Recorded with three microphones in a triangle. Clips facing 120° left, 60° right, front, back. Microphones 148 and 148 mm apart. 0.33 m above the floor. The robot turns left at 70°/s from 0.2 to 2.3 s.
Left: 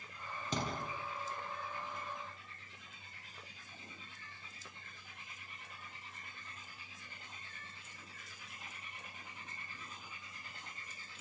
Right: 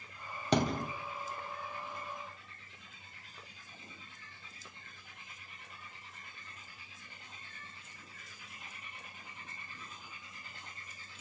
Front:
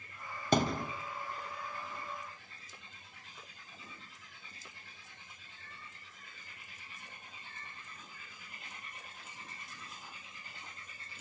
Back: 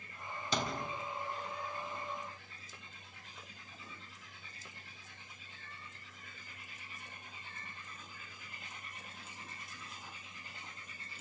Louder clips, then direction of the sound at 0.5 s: Right 9 dB, front 7 dB; 40° right.